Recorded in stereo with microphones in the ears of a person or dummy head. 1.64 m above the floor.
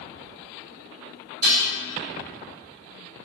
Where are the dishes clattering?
50° right (ahead or behind), 1.6 m.